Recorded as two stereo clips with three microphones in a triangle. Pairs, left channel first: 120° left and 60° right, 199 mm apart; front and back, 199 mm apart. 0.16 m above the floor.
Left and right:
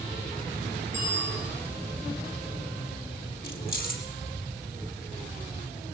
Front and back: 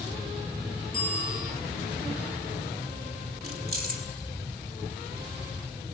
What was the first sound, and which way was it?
A bicycle bell, 40° right.